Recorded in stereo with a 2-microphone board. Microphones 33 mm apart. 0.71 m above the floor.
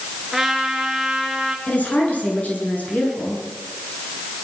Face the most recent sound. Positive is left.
turn(degrees=50)  # may be behind; listen again after turning